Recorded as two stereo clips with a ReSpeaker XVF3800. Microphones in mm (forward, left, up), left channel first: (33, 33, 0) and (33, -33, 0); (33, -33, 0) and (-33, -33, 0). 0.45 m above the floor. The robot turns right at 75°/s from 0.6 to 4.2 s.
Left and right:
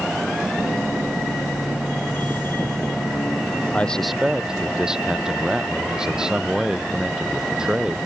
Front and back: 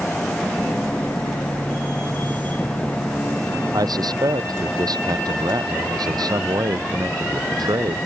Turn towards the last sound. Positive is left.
turn(degrees=-170)